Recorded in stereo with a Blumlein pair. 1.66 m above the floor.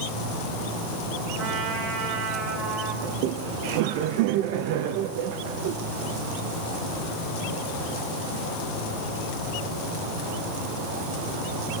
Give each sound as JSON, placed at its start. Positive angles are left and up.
{"t": 1.4, "sound": "a trumpet", "azimuth_deg": -25, "distance_m": 5.5}
{"t": 3.0, "sound": "laughter", "azimuth_deg": -45, "distance_m": 1.3}